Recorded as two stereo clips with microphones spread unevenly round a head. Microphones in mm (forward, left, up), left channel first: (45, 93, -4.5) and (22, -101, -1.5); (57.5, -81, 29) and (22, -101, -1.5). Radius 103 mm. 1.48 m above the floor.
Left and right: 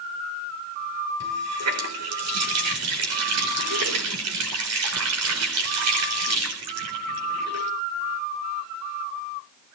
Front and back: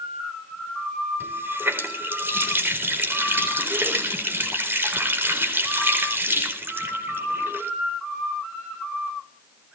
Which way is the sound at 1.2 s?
110° right.